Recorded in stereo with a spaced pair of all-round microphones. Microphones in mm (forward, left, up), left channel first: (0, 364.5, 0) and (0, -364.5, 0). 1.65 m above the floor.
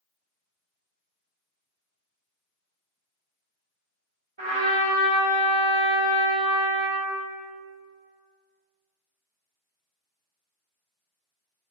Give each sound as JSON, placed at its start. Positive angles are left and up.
{"t": 4.4, "sound": "a trumpet", "side_deg": -40, "distance_m": 1.3}